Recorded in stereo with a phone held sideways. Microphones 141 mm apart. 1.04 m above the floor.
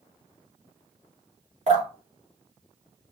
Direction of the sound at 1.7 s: 55° right (ahead or behind).